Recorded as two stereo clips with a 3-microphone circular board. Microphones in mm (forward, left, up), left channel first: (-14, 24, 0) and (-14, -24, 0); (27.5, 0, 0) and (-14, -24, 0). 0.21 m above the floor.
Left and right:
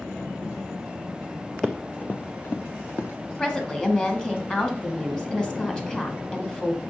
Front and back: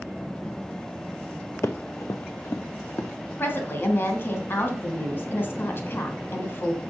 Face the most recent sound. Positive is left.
turn(degrees=25)